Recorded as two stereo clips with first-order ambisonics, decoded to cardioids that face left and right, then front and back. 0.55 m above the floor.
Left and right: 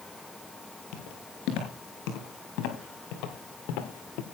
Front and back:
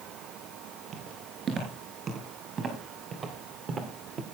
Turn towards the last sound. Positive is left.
turn(degrees=115)